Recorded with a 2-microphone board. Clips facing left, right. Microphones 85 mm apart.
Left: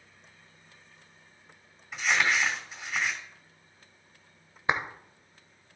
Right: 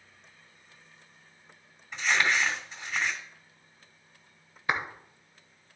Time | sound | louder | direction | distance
1.9 | crumpling | even | 10° left (ahead or behind) | 2.5 m
4.7 | a clap | left 2 dB | 25° left (ahead or behind) | 1.0 m